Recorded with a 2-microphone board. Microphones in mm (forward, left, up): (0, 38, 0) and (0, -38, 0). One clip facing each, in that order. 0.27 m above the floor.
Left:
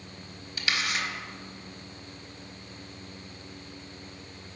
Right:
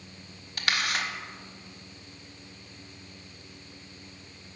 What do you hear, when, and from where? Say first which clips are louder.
0.6 s a camera shutter: right 1 dB; 50° right (ahead or behind), 0.6 m